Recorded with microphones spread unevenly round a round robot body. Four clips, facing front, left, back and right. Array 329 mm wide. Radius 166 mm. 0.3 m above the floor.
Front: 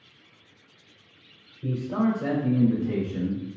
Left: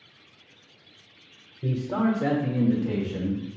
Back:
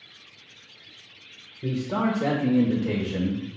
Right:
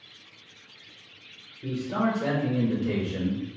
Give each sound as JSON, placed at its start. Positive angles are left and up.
{"t": 1.6, "sound": "a man speaking", "azimuth_deg": 135, "distance_m": 1.0}